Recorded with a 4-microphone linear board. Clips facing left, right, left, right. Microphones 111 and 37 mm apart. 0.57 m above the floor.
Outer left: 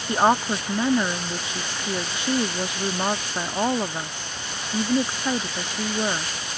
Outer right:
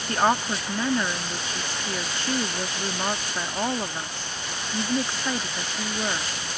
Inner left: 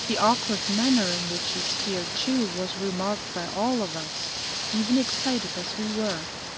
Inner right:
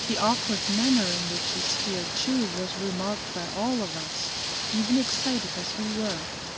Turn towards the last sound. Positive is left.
turn(degrees=15)  # may be behind; listen again after turning